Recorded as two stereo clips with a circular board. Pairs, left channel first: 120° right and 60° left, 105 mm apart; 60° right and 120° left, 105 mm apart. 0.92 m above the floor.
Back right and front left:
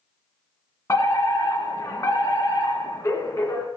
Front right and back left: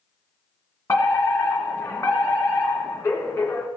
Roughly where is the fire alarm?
Right.